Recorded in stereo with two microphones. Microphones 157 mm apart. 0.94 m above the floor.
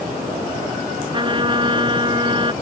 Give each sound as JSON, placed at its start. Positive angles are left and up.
{"t": 1.1, "sound": "a trumpet", "side_deg": -30}